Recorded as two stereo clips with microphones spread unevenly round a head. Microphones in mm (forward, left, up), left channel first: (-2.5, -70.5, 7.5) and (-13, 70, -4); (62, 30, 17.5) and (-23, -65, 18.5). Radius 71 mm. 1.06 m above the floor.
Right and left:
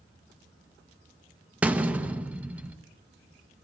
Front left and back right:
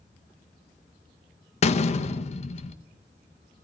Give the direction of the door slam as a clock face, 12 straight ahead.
12 o'clock.